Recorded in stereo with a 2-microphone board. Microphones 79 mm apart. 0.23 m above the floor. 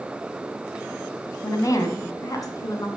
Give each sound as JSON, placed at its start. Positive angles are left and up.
{"t": 1.4, "sound": "a woman speaking", "side_deg": 40, "distance_m": 1.3}